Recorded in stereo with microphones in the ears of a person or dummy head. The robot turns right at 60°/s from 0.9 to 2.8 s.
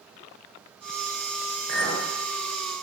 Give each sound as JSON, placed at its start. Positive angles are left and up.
{"t": 1.7, "sound": "a clink", "side_deg": -50, "distance_m": 1.0}